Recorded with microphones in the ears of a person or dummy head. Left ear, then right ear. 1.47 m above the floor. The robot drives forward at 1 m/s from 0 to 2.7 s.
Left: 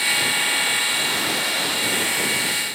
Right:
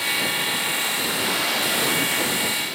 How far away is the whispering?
No whispering in this recording.